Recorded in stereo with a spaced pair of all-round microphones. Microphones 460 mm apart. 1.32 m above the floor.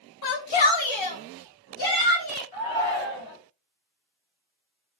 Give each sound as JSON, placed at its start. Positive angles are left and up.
{"t": 0.2, "sound": "a shout", "side_deg": 55, "distance_m": 0.6}
{"t": 2.5, "sound": "a shout", "side_deg": 70, "distance_m": 1.3}